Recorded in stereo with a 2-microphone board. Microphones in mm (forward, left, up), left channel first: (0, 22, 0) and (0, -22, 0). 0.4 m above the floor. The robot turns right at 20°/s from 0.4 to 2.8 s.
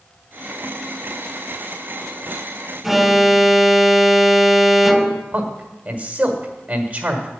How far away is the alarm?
About 0.5 m.